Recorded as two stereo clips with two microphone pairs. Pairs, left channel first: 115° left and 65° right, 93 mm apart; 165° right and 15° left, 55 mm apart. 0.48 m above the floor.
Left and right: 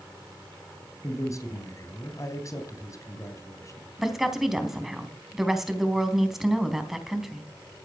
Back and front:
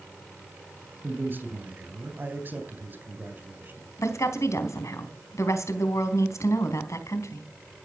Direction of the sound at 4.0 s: 150° right.